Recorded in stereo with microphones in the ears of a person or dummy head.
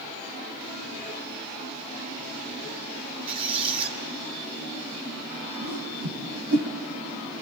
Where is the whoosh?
50° right (ahead or behind), 2.5 m.